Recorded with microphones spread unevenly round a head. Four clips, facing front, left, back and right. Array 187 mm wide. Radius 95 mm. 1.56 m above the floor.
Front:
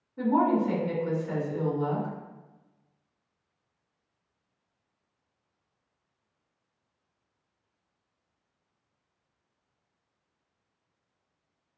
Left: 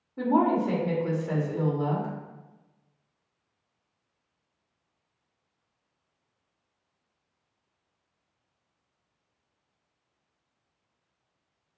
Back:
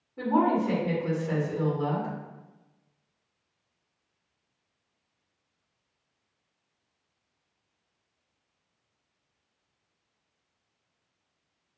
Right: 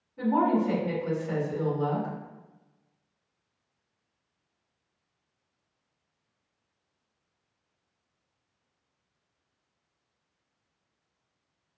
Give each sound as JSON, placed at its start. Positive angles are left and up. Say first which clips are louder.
{"t": 0.2, "sound": "a woman speaking", "louder": "left 1 dB, even", "azimuth_deg": 110, "distance_m": 1.6}